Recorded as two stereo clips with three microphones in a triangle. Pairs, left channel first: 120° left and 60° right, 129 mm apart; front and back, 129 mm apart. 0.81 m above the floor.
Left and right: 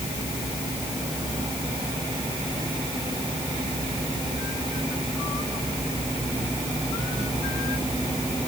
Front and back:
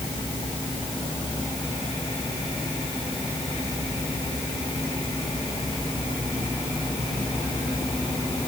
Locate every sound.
Only background noise.